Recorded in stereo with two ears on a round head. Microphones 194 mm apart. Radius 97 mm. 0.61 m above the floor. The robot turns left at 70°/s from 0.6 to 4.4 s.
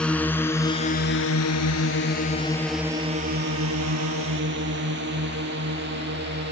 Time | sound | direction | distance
0.0 | a drone | 5° left (ahead or behind) | ?